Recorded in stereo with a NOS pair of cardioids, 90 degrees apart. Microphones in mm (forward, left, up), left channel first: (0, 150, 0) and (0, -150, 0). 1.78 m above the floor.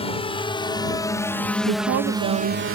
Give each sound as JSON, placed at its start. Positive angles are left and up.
{"t": 0.0, "sound": "a drone", "azimuth_deg": 20}
{"t": 1.7, "sound": "a woman speaking", "azimuth_deg": -65}